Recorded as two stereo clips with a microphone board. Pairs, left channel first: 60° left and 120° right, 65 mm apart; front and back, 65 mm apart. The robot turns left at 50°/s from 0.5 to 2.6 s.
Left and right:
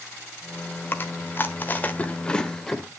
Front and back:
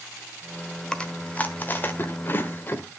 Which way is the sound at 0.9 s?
65° left.